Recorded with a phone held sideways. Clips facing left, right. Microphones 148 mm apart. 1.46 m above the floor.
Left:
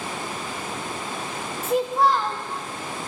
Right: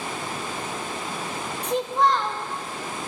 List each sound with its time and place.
1.6 s a child speaking: 5° left (ahead or behind), 0.6 m